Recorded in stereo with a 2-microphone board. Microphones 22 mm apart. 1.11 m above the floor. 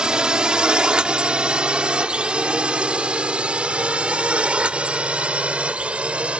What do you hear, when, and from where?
0.0 s a drone: 45° right (ahead or behind); by 6.4 s 70° right (ahead or behind)